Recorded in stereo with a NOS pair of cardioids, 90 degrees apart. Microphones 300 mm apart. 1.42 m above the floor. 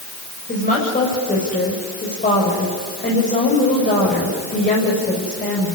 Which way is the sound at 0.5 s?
25° left.